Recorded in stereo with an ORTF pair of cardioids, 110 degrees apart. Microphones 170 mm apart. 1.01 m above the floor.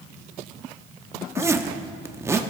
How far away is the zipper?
About 0.8 m.